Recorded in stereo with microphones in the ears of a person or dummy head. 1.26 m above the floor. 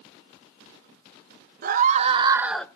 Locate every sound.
1.6 s a scream: 40° right (ahead or behind), 1.1 m; by 2.6 s 15° left (ahead or behind), 0.7 m